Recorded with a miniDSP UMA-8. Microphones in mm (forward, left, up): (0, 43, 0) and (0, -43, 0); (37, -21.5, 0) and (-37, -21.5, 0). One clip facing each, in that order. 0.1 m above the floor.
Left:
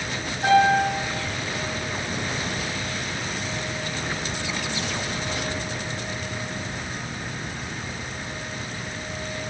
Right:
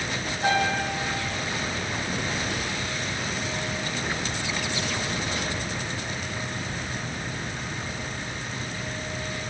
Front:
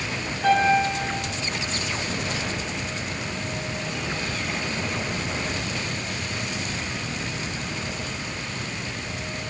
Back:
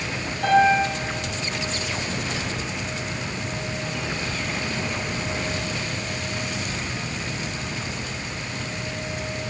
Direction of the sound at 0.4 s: 175° left.